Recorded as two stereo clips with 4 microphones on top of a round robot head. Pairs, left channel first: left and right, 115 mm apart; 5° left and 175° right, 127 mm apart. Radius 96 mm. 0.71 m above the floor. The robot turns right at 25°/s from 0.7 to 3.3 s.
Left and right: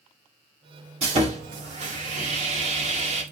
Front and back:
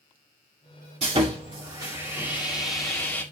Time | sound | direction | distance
1.0 | sawing | 130° right | 2 m